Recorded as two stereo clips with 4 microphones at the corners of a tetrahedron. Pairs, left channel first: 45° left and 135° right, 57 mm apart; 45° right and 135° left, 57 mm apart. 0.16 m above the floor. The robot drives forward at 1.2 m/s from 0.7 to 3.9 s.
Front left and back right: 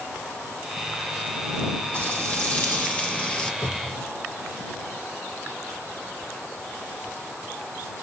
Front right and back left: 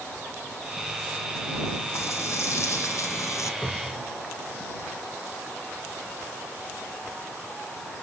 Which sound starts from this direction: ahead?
Frying, at 1.9 s.